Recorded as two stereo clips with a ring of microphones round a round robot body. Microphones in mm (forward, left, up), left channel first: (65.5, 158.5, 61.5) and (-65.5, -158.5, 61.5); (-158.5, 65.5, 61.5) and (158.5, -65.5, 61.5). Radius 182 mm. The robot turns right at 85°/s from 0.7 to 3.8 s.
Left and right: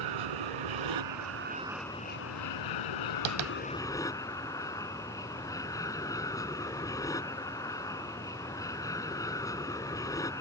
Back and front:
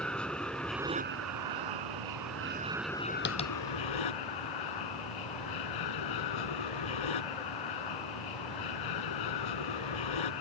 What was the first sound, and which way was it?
An aircraft, 115° right.